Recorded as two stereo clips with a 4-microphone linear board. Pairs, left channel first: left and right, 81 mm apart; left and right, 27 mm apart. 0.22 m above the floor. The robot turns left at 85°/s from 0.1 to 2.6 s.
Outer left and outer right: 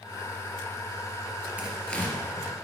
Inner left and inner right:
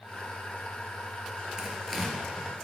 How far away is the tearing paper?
About 3.5 m.